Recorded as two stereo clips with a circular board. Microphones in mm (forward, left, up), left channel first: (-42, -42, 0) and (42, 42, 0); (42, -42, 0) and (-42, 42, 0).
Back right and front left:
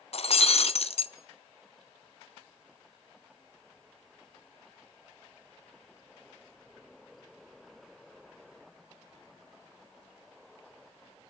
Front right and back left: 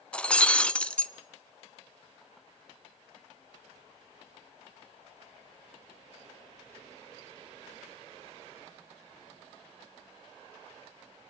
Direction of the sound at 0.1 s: 125° right.